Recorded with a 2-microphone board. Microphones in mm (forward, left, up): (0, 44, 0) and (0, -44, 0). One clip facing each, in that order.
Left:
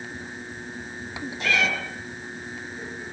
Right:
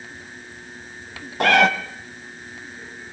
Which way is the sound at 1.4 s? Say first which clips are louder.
Right 10 dB; 65° right (ahead or behind).